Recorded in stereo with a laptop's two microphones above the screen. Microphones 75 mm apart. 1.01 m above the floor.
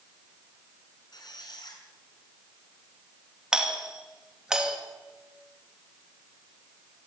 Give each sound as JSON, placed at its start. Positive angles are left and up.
{"t": 1.1, "sound": "a squeak", "side_deg": 65, "distance_m": 6.0}
{"t": 3.5, "sound": "a doorbell", "side_deg": -10, "distance_m": 2.5}